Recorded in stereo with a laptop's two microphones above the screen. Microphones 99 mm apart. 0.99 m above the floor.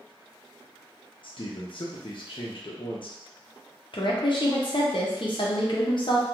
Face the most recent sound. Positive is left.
turn(degrees=55)  # may be behind; listen again after turning